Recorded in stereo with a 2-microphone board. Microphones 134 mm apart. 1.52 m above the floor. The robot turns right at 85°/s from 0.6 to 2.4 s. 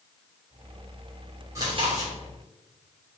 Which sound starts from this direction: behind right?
Chewing, at 1.6 s.